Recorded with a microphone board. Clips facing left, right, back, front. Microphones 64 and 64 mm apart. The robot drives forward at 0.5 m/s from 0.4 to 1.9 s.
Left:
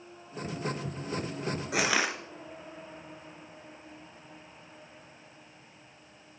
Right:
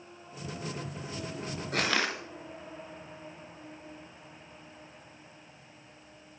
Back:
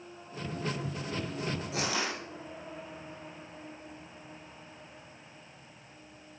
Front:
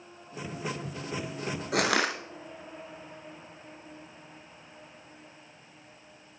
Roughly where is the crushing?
Ahead.